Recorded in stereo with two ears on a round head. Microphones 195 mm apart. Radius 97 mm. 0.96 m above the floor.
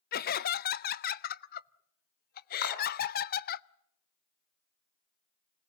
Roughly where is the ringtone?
No ringtone in this recording.